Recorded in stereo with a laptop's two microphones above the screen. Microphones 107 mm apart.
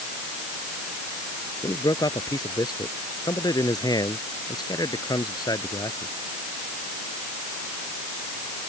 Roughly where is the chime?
No chime in this recording.